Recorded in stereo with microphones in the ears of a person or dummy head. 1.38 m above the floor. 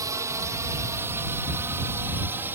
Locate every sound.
0.0 s a drone: 15° right (ahead or behind); by 2.5 s 10° right (ahead or behind)